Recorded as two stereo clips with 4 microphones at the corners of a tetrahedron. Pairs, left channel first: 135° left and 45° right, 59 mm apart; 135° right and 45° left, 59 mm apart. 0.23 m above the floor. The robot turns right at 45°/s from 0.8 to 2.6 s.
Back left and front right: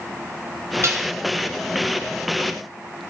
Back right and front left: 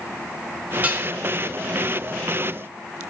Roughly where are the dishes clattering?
Ahead.